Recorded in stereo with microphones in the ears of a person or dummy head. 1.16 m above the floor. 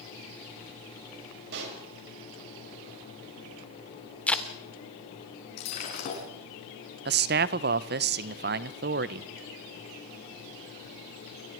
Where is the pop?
65° right (ahead or behind), 6 m.